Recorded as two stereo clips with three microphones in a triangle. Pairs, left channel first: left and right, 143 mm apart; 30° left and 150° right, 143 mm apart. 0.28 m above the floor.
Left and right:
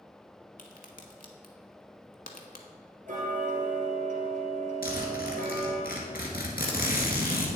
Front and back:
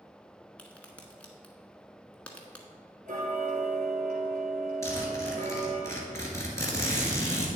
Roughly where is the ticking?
Behind right.